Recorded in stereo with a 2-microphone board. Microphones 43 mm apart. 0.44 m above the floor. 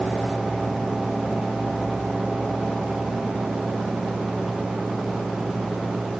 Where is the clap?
No clap in this recording.